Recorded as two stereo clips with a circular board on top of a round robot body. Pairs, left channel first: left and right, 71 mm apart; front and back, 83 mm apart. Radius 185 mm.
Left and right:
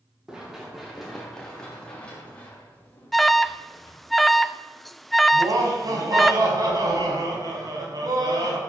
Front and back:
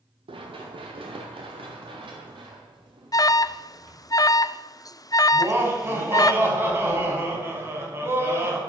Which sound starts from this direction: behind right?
Laughter, at 5.3 s.